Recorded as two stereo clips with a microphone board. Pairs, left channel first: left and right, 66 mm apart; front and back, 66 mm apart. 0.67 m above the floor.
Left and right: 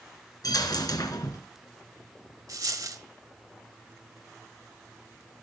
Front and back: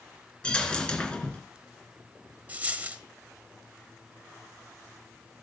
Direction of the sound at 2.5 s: 115° right.